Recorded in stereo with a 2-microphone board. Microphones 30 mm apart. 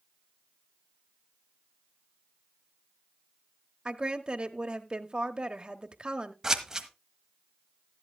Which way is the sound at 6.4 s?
20° right (ahead or behind).